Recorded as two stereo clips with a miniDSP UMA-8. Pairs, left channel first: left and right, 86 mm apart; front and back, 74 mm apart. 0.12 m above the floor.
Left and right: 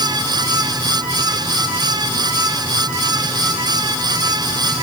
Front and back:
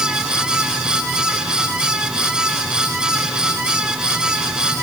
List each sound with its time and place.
Only background noise.